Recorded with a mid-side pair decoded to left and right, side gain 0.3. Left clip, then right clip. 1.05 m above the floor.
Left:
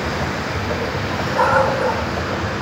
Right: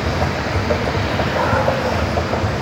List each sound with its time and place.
0.0 s a machine running: 65° right, 5.5 m
1.4 s a dog barking: 55° left, 3.5 m